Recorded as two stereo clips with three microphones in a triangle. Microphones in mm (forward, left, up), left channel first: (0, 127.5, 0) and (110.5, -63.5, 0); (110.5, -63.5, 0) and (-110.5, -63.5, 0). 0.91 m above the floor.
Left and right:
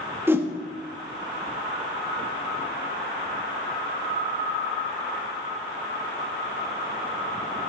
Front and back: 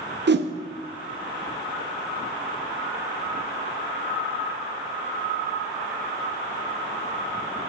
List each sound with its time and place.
0.3 s a whoosh: 140° right, 0.6 m